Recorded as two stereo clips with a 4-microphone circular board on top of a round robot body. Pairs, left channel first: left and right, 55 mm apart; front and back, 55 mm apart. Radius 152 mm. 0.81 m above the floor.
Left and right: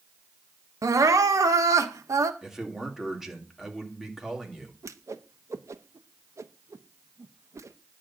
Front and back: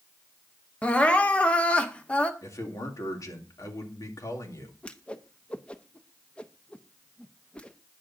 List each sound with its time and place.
0.8 s crying: 70° right, 1.1 m
2.4 s a man speaking: 5° right, 3 m
4.8 s a whoosh: 70° right, 1.0 m